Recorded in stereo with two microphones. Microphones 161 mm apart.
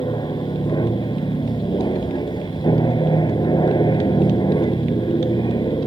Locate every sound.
0.0 s an aircraft: 25° left (ahead or behind)